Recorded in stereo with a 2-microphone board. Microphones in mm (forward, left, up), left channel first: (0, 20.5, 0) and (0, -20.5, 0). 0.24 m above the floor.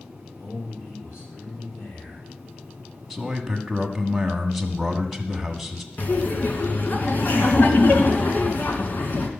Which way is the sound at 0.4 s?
80° left.